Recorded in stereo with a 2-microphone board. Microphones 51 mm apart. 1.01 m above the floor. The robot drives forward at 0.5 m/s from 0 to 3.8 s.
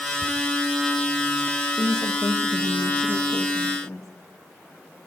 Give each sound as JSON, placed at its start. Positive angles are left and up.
{"t": 0.2, "sound": "ticking", "side_deg": 50, "distance_m": 3.5}
{"t": 1.7, "sound": "a woman speaking", "side_deg": 55, "distance_m": 1.1}